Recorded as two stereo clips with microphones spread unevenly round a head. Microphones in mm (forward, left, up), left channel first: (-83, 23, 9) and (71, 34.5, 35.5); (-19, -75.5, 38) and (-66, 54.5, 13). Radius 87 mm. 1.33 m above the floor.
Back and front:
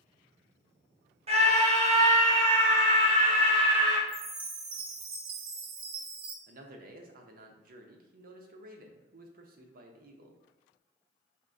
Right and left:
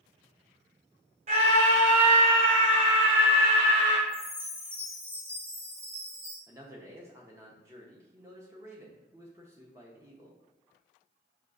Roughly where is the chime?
Ahead left.